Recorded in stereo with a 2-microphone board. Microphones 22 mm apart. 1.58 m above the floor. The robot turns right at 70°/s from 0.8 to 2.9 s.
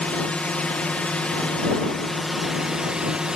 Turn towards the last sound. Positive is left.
turn(degrees=-140)